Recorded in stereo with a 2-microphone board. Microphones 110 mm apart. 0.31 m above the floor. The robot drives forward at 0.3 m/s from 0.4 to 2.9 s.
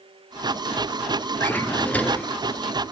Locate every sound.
1.4 s a drawer: 20° left (ahead or behind), 0.7 m; by 2.3 s 15° left (ahead or behind), 0.9 m